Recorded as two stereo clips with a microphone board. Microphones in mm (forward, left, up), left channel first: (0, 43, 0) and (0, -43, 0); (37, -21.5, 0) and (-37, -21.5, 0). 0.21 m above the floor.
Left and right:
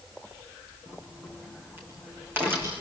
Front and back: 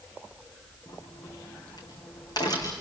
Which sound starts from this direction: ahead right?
A crack, at 0.9 s.